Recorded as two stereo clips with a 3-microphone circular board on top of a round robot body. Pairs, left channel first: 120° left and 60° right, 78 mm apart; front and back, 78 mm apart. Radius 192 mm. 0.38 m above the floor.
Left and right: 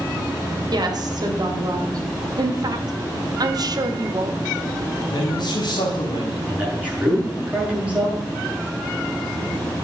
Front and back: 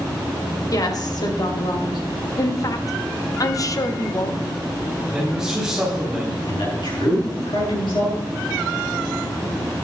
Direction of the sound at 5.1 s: 100° left.